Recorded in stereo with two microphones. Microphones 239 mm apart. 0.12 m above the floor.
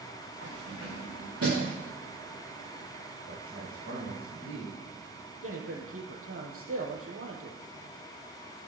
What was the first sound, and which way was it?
Keys jangling, 80° right.